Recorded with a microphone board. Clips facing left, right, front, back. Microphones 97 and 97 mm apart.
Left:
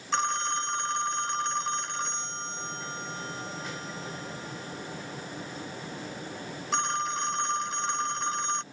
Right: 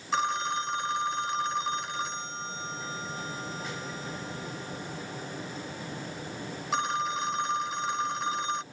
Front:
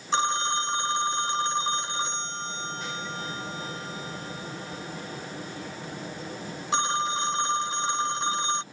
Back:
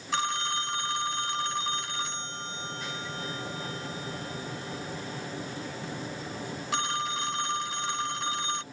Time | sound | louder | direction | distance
0.1 | a phone ringing | right 1 dB, front 4 dB | 10° right | ?